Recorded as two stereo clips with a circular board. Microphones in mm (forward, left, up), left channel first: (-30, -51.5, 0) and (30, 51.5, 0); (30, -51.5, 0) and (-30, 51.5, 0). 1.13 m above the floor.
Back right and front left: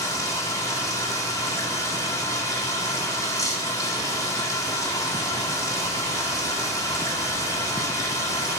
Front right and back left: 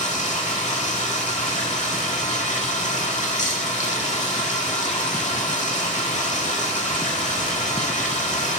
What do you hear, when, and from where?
0.0 s running water: 60° right, 1.9 m